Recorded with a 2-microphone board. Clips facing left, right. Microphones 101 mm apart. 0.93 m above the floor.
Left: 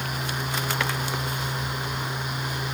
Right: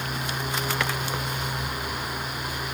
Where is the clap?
No clap in this recording.